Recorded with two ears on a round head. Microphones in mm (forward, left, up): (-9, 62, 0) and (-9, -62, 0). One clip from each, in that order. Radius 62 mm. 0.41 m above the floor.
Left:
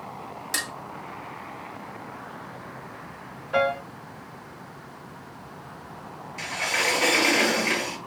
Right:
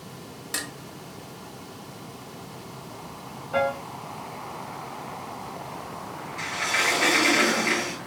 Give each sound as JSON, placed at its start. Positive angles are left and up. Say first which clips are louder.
{"t": 0.5, "sound": "dishes clattering", "louder": "left 3 dB", "side_deg": 15, "distance_m": 0.6}
{"t": 3.5, "sound": "a piano", "louder": "left 2 dB", "side_deg": 35, "distance_m": 1.8}
{"t": 6.4, "sound": "a sliding door", "louder": "right 1 dB", "side_deg": 20, "distance_m": 5.0}